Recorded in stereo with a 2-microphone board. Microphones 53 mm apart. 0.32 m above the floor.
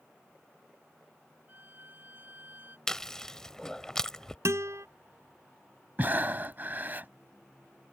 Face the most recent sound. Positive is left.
turn(degrees=-40)  # may be behind; listen again after turning